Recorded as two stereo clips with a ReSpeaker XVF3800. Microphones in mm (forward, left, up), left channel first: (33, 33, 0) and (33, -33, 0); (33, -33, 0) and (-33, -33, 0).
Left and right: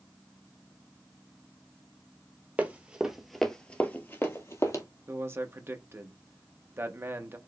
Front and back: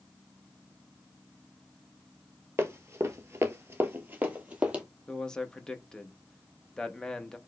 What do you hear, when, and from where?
2.6 s running footsteps: 145° right, 1.0 m; by 4.8 s 110° left, 1.3 m
5.1 s a man speaking: 75° right, 0.6 m